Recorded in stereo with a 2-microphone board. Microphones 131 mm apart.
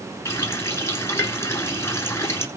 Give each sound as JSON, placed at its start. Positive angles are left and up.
{"t": 0.2, "sound": "a running tap", "side_deg": 20, "distance_m": 1.8}